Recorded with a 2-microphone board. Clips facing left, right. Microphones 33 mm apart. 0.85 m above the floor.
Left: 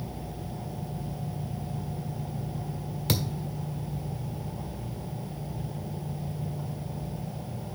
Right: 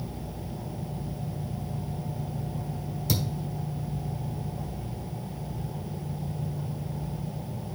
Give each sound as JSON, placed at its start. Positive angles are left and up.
{"t": 3.1, "sound": "a thud", "side_deg": 50, "distance_m": 1.3}